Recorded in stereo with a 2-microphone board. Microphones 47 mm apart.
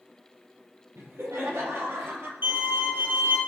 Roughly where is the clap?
No clap in this recording.